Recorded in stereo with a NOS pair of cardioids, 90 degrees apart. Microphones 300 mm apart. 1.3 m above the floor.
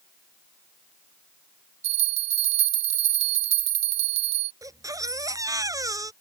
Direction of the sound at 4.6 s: 10° right.